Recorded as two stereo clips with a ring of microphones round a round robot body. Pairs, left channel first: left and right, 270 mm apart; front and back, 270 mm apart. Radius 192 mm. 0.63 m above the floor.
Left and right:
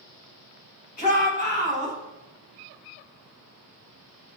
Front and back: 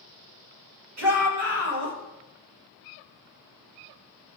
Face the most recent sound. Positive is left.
turn(degrees=155)